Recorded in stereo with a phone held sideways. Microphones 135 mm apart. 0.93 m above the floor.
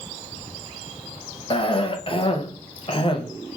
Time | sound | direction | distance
1.5 | a cough | 40° left (ahead or behind) | 0.8 m